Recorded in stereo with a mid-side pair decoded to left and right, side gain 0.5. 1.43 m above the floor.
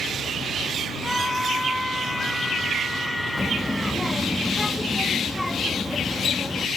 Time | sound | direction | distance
1.0 | a scream | 5° left | ?
3.4 | a child speaking | 5° left | ?